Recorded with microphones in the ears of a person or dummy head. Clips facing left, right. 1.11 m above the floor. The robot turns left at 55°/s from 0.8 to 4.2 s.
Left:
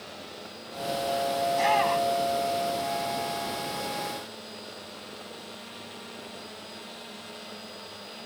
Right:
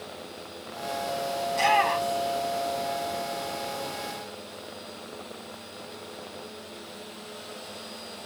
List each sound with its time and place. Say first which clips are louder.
1.5 s a shout: right 1 dB; 40° right (ahead or behind), 1.6 m; by 2.4 s 5° left (ahead or behind), 1.6 m